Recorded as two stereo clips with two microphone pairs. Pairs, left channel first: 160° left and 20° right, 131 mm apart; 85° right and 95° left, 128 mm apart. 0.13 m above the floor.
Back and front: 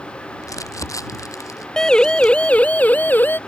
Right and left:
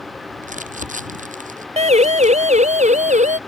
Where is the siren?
75° left; by 3.4 s 80° left.